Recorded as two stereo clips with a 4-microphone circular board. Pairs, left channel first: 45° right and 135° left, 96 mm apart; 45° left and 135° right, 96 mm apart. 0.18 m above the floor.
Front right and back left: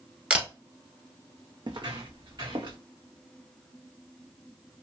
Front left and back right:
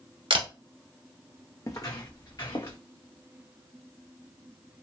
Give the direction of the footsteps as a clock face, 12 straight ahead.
9 o'clock.